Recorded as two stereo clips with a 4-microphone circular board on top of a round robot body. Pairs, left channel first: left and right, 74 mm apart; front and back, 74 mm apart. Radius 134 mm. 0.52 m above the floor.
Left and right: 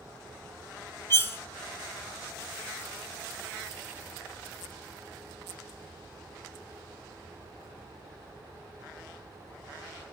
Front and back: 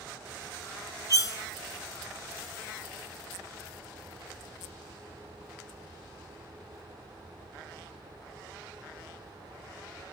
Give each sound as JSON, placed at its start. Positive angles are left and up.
{"t": 1.1, "sound": "cutlery clinking", "azimuth_deg": 35, "distance_m": 0.7}